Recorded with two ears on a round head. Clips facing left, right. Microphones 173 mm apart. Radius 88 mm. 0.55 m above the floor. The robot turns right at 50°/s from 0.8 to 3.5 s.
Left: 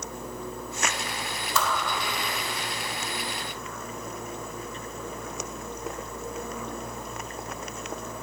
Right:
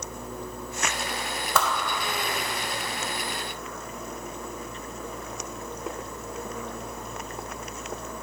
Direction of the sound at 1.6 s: 45° right (ahead or behind).